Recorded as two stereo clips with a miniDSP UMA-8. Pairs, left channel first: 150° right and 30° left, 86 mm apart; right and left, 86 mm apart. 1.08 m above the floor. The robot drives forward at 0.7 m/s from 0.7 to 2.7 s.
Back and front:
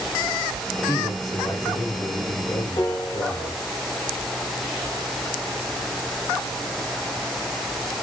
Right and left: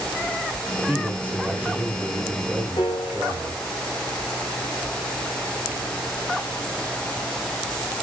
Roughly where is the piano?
Behind right.